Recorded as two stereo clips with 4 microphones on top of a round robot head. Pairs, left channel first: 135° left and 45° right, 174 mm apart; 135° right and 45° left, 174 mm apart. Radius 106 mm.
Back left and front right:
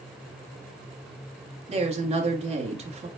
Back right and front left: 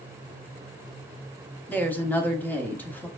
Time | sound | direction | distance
1.7 | a woman speaking | 60° right | 1.2 m